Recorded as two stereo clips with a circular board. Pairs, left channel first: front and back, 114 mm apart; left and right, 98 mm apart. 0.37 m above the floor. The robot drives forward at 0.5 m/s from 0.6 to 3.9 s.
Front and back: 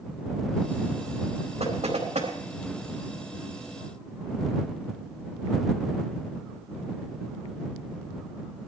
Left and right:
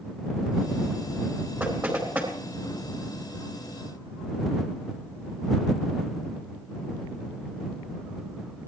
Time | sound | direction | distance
1.6 | knocking | 160° right | 4 m